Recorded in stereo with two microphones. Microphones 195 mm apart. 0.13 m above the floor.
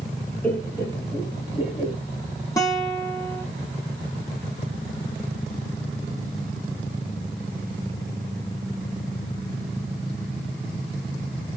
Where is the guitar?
15° left (ahead or behind), 1.6 m.